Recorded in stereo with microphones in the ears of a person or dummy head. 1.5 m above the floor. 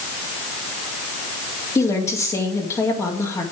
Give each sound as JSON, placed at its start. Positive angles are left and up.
{"t": 1.8, "sound": "a woman speaking", "side_deg": 15, "distance_m": 2.0}